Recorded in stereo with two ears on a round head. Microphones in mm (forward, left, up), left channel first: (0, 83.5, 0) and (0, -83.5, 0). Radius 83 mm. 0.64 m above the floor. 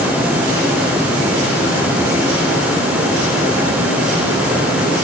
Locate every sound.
Only background noise.